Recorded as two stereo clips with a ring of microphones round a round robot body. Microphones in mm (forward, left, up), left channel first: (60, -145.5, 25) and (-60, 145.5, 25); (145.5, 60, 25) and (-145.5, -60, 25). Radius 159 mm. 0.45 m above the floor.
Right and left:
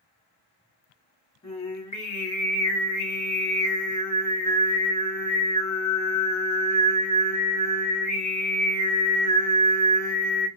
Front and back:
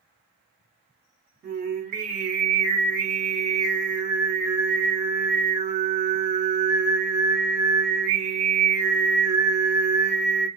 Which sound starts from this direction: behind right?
Singing, at 1.4 s.